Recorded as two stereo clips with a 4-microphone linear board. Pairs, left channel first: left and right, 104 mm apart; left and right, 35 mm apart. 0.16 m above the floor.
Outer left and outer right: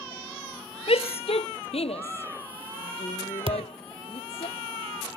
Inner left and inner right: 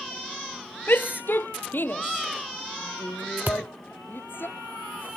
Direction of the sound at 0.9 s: 70° left (ahead or behind).